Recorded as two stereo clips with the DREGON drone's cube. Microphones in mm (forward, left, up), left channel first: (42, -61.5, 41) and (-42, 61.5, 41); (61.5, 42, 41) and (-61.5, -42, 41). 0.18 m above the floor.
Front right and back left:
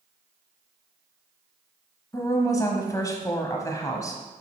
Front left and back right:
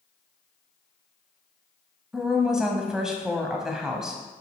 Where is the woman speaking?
65° right, 1.0 m.